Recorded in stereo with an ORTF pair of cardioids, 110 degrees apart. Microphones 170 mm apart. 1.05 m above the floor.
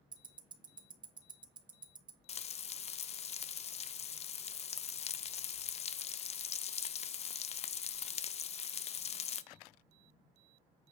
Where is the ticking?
30° right, 1.2 m.